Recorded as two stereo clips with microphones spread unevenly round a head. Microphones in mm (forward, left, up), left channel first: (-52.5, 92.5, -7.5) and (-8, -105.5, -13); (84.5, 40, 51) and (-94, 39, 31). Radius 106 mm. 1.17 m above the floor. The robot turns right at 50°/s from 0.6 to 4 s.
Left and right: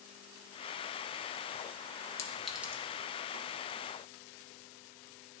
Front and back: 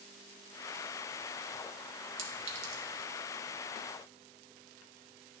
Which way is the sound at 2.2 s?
175° left.